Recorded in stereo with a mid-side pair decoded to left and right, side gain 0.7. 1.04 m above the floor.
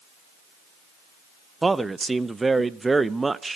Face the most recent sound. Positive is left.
turn(degrees=-15)